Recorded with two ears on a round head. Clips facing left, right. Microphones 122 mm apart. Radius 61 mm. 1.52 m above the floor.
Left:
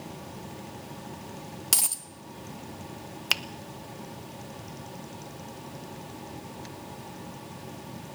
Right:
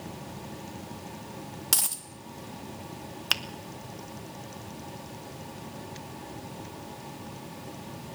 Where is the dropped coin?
5° left (ahead or behind), 1.0 m.